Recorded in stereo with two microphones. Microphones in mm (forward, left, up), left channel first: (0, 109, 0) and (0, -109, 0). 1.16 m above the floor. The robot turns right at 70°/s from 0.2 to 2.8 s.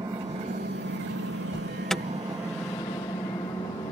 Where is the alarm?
20° left (ahead or behind); by 2.0 s 5° right (ahead or behind).